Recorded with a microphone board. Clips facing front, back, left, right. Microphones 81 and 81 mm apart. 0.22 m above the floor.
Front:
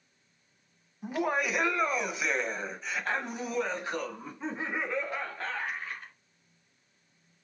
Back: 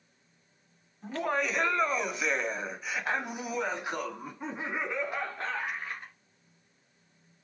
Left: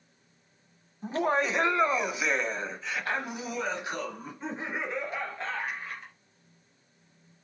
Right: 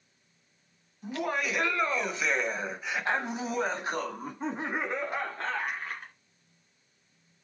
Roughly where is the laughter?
Left.